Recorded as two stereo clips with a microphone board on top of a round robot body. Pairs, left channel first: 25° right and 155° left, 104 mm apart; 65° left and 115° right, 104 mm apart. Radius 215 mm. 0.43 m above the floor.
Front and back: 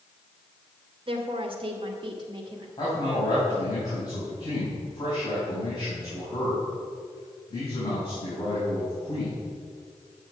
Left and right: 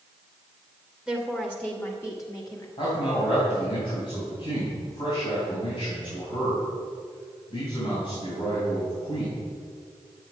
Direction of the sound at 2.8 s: 30° left.